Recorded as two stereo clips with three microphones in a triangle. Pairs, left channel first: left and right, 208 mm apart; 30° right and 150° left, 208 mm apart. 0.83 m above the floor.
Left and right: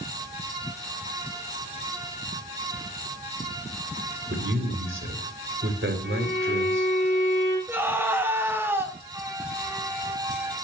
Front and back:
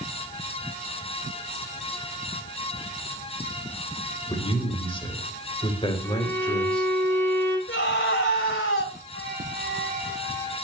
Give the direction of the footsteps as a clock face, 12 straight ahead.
I don't hear footsteps.